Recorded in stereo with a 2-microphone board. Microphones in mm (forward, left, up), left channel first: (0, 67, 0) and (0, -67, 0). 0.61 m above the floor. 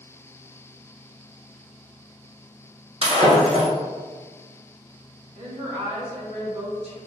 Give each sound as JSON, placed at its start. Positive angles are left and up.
{"t": 3.0, "sound": "breaking glass", "side_deg": -50, "distance_m": 1.0}
{"t": 5.3, "sound": "a woman speaking", "side_deg": -55, "distance_m": 1.3}